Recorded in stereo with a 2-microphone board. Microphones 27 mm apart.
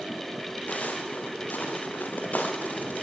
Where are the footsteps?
80° left, 4.5 m; by 3.0 s 75° left (ahead or behind), 4.5 m.